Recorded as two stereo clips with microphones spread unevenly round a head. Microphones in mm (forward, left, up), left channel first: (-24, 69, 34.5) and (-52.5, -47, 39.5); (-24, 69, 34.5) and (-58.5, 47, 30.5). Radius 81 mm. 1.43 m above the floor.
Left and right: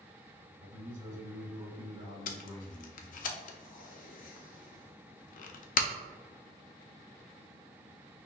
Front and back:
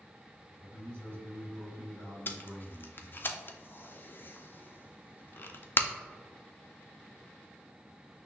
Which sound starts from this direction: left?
Tape being pulled, at 2.3 s.